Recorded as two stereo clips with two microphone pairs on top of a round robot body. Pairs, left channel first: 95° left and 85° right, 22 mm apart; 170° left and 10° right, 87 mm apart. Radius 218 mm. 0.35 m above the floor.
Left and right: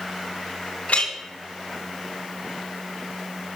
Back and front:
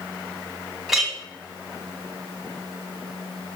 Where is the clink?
75° left, 3 m.